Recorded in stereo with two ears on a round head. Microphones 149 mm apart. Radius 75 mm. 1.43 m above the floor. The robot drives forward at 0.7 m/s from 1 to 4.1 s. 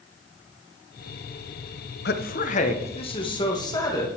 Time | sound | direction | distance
2.0 | a man speaking | 65° left (ahead or behind) | 0.7 m